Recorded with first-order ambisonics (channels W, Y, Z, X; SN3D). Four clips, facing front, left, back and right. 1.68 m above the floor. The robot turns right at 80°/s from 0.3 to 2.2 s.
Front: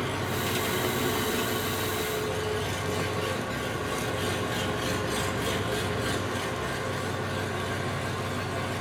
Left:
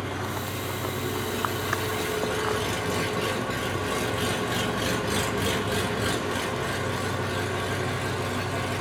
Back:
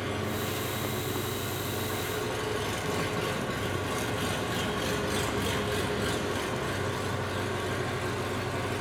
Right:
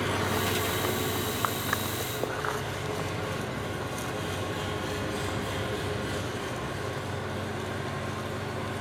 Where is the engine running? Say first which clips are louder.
Right 3 dB, front 2 dB; 60° right, 1.5 m; by 8.8 s 95° left, 1.5 m.